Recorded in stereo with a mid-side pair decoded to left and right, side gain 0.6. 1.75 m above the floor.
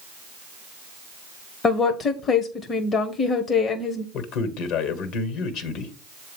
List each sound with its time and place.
1.6 s a woman speaking: 35° left, 0.9 m
4.1 s a man speaking: 70° left, 1.5 m